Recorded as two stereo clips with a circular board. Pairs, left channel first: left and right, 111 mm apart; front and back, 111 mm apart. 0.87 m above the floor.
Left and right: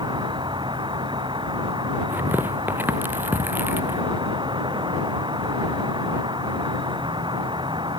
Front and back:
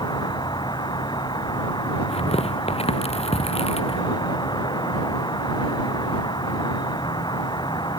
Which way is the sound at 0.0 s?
45° right.